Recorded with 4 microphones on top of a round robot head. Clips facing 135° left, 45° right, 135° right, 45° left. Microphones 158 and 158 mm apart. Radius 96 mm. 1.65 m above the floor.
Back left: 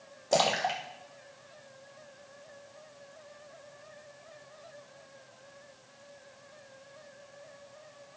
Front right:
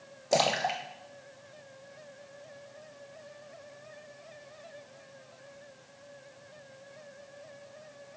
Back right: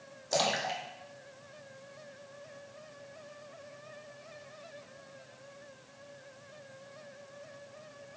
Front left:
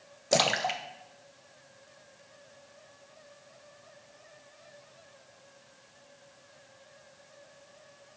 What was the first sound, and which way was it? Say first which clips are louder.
A splash: even, front left 4 dB; 35° left.